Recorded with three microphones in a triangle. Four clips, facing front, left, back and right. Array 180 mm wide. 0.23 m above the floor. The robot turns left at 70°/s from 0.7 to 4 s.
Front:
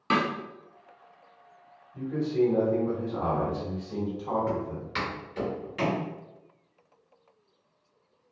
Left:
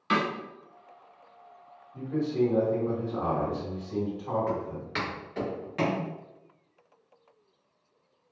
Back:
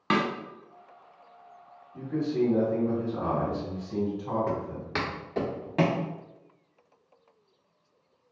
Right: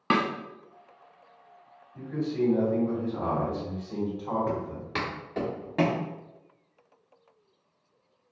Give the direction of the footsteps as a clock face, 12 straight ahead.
5 o'clock.